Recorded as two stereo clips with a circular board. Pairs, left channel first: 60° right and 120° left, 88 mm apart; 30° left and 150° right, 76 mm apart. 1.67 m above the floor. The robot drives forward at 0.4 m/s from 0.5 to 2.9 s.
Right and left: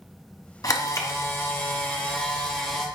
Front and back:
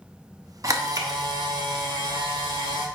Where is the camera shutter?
105° right, 0.9 m; by 2.9 s 140° right, 1.5 m.